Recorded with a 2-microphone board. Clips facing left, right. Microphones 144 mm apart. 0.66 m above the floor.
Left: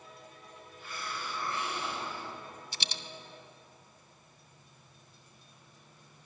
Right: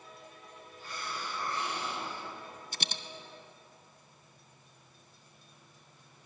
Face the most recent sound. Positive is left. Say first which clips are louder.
# right 4 dB
turn(degrees=-50)  # may be behind; listen again after turning